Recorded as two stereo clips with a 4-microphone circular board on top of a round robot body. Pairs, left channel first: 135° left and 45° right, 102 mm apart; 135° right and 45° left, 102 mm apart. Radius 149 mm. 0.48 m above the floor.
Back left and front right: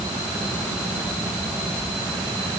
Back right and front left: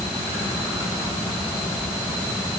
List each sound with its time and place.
Only background noise.